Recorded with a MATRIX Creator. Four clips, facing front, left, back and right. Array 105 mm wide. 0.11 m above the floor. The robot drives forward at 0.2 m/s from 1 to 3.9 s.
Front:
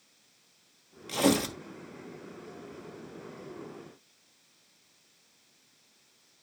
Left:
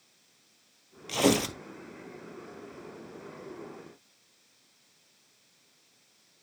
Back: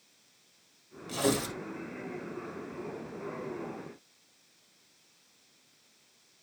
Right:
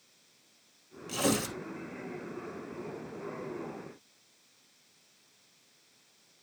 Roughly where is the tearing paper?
Ahead left.